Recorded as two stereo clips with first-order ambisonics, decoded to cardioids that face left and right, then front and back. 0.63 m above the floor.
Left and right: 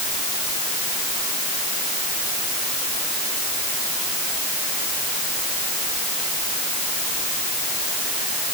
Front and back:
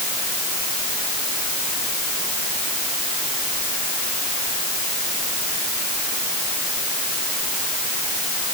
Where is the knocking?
I don't hear knocking.